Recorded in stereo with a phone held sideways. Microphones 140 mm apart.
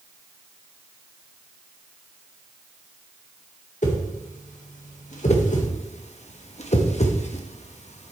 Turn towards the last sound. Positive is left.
turn(degrees=55)  # may be behind; listen again after turning